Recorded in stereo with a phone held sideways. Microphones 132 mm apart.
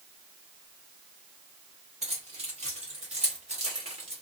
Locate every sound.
2.0 s keys jangling: 55° right (ahead or behind), 3.5 m; by 4.2 s 45° right (ahead or behind), 2.0 m